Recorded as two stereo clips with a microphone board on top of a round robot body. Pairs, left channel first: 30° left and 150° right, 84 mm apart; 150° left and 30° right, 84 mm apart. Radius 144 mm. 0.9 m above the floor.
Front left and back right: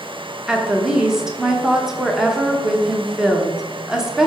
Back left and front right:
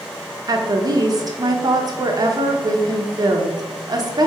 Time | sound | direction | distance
0.5 | a woman speaking | 65° right | 0.7 m